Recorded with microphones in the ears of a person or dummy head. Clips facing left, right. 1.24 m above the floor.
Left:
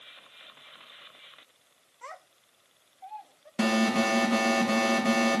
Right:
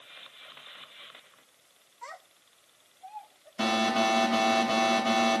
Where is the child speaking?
40° left (ahead or behind), 2.0 m; by 3.5 s 75° left (ahead or behind), 3 m.